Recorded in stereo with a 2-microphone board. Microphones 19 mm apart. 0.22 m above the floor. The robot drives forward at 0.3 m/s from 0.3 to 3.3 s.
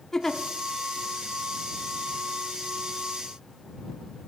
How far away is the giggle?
About 0.7 m.